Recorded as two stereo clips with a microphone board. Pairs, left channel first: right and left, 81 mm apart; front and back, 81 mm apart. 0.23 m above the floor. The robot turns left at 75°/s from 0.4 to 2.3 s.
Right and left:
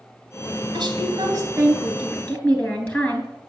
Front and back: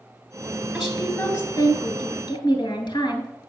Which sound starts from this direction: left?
A woman speaking, at 0.7 s.